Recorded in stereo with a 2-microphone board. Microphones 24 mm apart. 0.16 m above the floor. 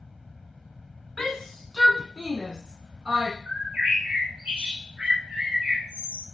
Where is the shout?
15° left (ahead or behind), 1.5 m; by 3.4 s 45° right (ahead or behind), 1.5 m.